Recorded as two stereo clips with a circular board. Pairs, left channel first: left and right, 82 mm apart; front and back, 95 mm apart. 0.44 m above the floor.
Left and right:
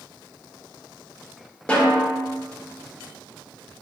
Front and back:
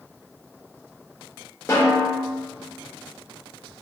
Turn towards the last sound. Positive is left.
turn(degrees=25)